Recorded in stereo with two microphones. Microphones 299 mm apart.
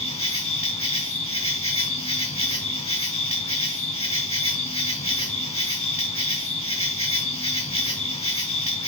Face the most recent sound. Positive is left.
turn(degrees=20)  # may be behind; listen again after turning